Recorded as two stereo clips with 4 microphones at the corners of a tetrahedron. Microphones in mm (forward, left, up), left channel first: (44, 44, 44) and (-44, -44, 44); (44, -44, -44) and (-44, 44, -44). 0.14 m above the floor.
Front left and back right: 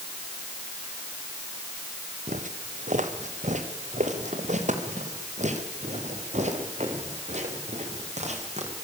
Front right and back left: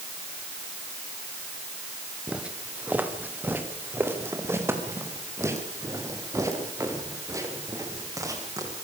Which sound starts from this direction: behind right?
Footsteps, at 2.3 s.